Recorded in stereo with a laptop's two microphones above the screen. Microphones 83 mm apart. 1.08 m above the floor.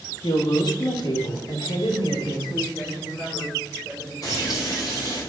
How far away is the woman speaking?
About 1.4 m.